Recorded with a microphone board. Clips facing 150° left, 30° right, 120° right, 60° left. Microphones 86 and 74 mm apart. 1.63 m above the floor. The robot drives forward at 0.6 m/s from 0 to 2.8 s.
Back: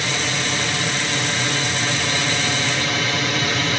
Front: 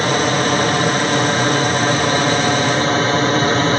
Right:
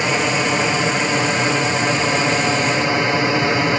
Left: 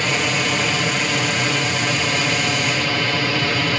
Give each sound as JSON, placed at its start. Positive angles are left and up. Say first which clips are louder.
{"t": 0.0, "sound": "an aircraft", "louder": "front 9 dB, right 3 dB", "azimuth_deg": -55}